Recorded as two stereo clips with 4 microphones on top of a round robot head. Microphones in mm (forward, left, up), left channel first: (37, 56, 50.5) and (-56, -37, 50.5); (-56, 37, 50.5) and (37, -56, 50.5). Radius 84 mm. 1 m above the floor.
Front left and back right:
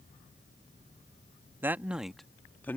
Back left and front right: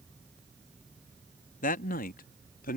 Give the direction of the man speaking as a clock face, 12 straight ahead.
7 o'clock.